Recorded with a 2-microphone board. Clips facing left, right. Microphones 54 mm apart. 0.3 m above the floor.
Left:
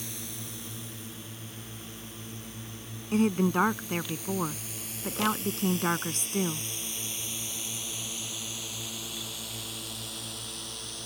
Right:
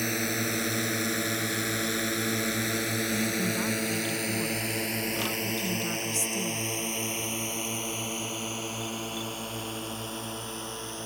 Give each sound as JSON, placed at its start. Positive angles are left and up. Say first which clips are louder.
{"t": 0.0, "sound": "a drone", "louder": "right 13 dB", "side_deg": -60}
{"t": 3.1, "sound": "a woman speaking", "louder": "left 9 dB", "side_deg": 45}